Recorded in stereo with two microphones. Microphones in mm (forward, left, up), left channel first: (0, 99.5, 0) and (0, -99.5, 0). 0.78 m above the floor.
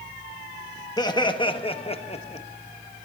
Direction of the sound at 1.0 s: 20° left (ahead or behind).